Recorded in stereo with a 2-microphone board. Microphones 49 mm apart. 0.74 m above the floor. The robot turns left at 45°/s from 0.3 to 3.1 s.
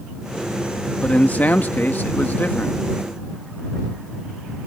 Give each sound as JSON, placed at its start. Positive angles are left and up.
{"t": 1.0, "sound": "a man speaking", "azimuth_deg": 135}